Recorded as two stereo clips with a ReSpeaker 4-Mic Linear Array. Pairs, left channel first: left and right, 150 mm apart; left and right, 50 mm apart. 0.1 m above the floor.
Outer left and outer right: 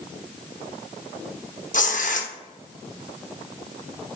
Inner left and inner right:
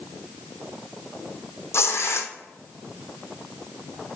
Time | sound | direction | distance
1.7 | tearing paper | 60° left (ahead or behind) | 1.2 m